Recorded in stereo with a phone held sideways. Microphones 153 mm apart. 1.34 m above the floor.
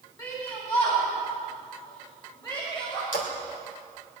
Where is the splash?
70° left (ahead or behind), 3 m.